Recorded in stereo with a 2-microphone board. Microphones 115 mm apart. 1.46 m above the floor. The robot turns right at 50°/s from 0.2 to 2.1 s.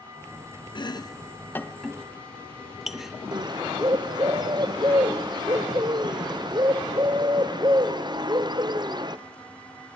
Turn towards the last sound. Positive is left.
turn(degrees=-40)  # may be behind; listen again after turning